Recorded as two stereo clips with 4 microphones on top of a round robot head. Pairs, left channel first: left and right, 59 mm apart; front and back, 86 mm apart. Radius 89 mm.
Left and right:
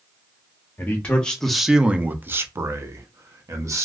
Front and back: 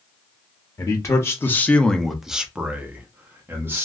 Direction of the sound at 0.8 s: 40° left.